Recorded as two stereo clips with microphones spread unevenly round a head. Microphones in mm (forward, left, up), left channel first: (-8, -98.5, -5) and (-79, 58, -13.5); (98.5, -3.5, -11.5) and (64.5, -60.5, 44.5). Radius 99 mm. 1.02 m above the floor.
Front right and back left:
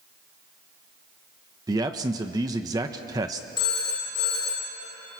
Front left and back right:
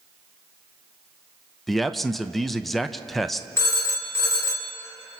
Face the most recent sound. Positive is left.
turn(degrees=5)